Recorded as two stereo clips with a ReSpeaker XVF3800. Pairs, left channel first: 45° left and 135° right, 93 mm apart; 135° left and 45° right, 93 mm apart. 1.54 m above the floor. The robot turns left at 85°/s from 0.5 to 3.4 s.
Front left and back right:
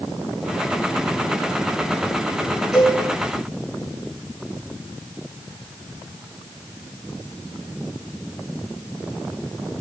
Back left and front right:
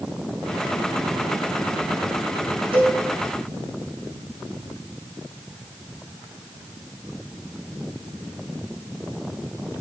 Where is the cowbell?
40° right, 8 m; by 3.0 s 65° right, 8 m.